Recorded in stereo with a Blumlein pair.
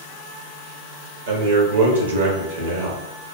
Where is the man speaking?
65° right, 1.2 m.